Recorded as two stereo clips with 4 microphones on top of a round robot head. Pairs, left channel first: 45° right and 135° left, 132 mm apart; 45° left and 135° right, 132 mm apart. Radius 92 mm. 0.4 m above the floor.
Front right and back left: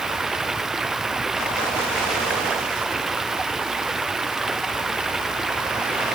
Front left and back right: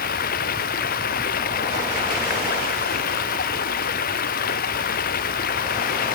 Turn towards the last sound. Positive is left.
turn(degrees=45)